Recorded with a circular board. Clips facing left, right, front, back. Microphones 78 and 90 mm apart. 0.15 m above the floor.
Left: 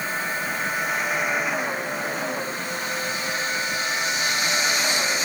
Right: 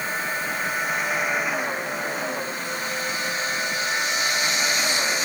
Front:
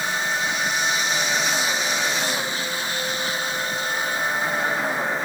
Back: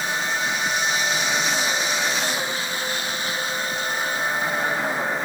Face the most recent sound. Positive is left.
No sound to turn to.